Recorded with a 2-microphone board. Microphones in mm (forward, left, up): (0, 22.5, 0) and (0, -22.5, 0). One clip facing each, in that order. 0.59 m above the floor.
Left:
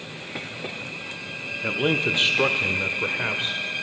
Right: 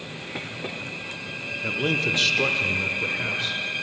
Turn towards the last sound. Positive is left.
turn(degrees=30)  # may be behind; listen again after turning